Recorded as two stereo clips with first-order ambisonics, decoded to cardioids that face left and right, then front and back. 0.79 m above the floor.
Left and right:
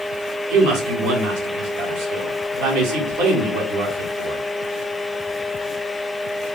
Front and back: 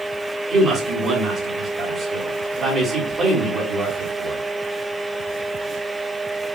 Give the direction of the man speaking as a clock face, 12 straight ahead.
4 o'clock.